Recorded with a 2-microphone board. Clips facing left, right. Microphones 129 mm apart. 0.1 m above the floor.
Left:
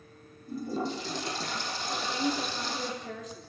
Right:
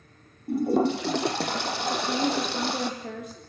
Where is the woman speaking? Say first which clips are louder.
Right 4 dB; 60° right (ahead or behind), 7 m.